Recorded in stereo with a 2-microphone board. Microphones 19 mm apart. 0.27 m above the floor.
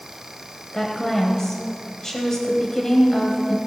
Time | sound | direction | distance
0.7 | a woman speaking | 25° left (ahead or behind) | 1.6 m